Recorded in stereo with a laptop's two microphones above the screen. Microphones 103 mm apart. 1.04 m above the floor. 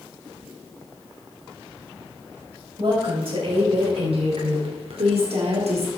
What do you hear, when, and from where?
2.8 s a woman speaking: 60° right (ahead or behind), 4.5 m; by 5.9 s 85° right, 1.9 m